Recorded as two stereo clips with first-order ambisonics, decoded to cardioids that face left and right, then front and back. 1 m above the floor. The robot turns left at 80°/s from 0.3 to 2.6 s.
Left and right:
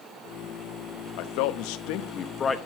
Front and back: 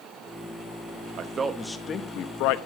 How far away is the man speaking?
About 0.9 m.